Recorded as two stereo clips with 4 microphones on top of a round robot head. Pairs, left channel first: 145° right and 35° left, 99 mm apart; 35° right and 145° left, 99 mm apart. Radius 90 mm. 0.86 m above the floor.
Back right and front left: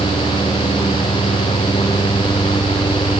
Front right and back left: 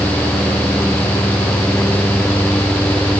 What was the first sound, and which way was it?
Only background noise.